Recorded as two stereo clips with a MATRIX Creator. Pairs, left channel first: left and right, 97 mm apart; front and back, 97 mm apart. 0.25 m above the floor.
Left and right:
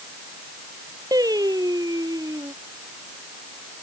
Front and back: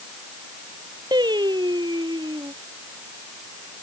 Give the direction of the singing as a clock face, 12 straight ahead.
5 o'clock.